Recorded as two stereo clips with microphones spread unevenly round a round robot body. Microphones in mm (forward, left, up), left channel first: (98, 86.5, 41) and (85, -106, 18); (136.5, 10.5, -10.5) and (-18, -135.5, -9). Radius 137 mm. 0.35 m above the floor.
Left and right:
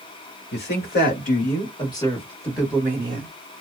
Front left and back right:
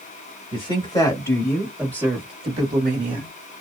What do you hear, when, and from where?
0.5 s a woman speaking: 105° left, 1.4 m; by 3.3 s 135° right, 1.1 m